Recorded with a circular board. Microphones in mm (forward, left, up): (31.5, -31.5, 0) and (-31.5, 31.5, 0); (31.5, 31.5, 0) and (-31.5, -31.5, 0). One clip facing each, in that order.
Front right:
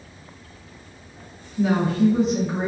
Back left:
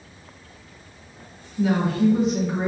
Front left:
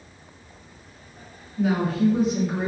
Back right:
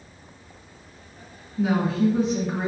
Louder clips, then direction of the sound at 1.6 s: Front right 1 dB, even; 50° right.